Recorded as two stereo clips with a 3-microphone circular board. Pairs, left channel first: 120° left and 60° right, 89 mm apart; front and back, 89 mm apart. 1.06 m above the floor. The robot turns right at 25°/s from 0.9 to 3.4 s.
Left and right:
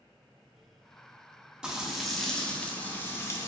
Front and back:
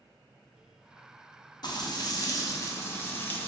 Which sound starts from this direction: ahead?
Frying, at 1.6 s.